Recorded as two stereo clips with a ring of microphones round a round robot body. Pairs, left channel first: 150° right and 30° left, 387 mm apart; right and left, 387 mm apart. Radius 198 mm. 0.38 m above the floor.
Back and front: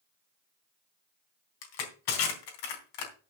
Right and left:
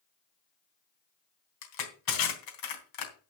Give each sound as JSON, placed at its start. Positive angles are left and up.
{"t": 1.6, "sound": "crushing", "azimuth_deg": -125, "distance_m": 3.5}